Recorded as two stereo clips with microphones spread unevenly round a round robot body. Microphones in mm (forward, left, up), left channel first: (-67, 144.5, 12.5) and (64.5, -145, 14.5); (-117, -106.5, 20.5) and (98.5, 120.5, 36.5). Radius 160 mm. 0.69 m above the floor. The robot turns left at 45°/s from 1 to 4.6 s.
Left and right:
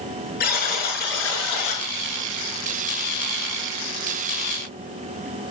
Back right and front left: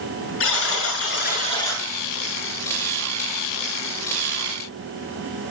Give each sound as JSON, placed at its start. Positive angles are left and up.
{"t": 0.4, "sound": "a buzzer", "azimuth_deg": 175, "distance_m": 6.5}